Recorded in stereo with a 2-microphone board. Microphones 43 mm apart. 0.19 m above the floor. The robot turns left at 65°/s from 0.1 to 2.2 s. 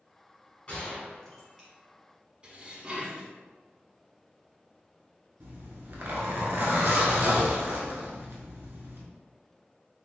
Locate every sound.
0.7 s a gunshot: 25° left (ahead or behind), 1.6 m; by 1.7 s 15° right (ahead or behind), 1.6 m
2.4 s dishes clattering: 30° right (ahead or behind), 0.9 m
5.4 s a zipper: 60° right (ahead or behind), 1.0 m